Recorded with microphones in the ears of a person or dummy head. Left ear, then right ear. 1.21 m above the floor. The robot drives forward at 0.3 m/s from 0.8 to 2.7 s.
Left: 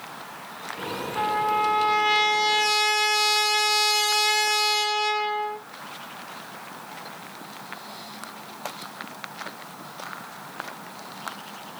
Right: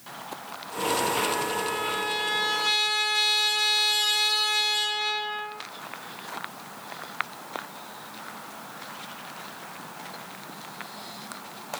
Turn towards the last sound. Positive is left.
turn(degrees=55)  # may be behind; listen again after turning